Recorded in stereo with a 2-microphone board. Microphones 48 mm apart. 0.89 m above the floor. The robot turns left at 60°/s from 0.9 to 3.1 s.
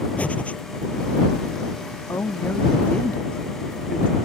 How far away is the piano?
No piano in this recording.